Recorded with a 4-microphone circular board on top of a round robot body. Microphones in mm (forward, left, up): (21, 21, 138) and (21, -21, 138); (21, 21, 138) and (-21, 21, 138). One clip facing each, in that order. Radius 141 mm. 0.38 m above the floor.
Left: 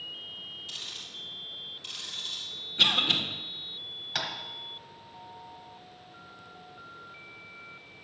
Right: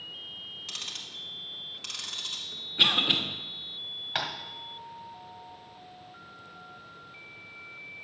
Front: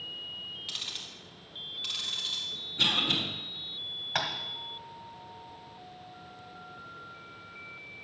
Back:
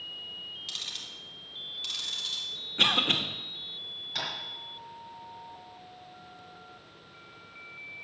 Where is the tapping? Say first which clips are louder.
Right 2 dB, front 4 dB; 30° right, 1.5 m.